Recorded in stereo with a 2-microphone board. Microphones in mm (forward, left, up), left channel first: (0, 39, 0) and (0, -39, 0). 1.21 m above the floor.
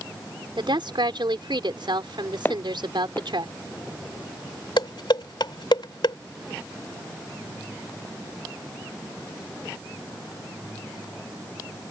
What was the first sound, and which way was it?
A woman speaking, 85° right.